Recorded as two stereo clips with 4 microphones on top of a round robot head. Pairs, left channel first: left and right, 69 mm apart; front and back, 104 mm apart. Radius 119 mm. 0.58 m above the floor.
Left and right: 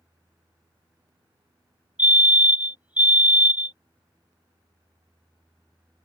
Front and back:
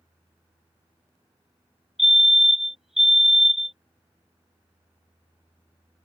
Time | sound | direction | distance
2.0 | a fire alarm | 95° right | ?